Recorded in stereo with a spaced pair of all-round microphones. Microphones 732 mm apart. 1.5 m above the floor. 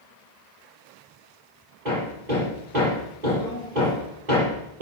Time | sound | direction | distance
1.9 | hammering | 70° right (ahead or behind) | 9.5 m